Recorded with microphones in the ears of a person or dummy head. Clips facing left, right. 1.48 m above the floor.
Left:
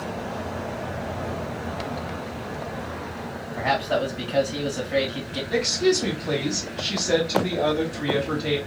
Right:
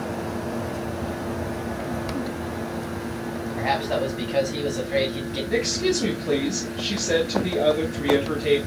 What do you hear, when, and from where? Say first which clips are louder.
3.6 s a man speaking: left 1 dB; 5° left (ahead or behind), 2 m
5.5 s a woman speaking: left 2 dB; 20° right (ahead or behind), 1.5 m